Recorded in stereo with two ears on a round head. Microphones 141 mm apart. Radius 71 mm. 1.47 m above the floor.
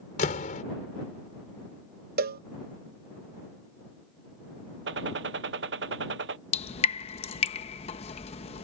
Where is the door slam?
50° left (ahead or behind).